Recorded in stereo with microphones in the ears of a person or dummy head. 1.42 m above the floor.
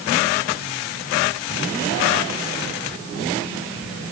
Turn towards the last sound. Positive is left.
No sound to turn to.